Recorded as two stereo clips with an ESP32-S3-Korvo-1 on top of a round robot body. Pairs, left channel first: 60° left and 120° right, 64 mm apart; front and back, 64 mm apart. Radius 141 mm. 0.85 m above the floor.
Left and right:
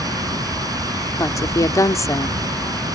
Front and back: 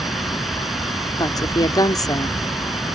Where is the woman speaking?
25° left.